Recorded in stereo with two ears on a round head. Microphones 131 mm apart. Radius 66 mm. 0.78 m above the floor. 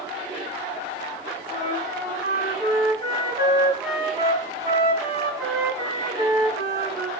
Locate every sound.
1.5 s a flute: 25° right (ahead or behind), 3.5 m